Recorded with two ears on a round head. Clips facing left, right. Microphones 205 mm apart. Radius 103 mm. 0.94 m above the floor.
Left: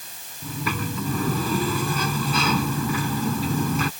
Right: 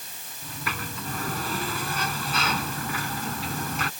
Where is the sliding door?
85° left.